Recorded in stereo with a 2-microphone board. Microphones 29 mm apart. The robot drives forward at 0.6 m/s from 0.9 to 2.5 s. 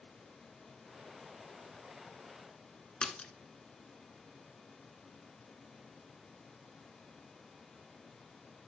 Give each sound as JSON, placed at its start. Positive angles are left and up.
{"t": 3.0, "sound": "a splash", "side_deg": 30, "distance_m": 1.7}